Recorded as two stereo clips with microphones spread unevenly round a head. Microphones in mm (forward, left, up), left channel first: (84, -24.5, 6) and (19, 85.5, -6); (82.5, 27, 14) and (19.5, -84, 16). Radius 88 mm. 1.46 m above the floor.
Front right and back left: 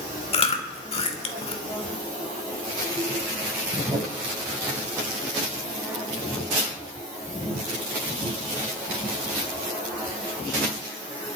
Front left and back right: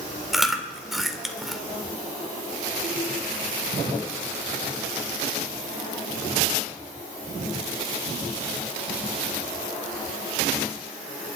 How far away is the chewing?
About 2.0 m.